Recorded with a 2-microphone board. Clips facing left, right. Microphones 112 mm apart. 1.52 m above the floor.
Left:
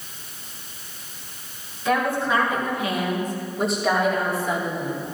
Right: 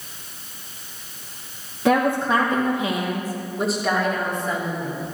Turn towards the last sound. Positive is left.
turn(degrees=15)  # may be behind; listen again after turning